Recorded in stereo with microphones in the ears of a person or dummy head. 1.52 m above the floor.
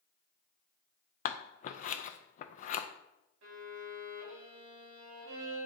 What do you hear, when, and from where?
1.2 s scissors: 45° left (ahead or behind), 0.5 m
3.4 s a violin: 80° right, 3.5 m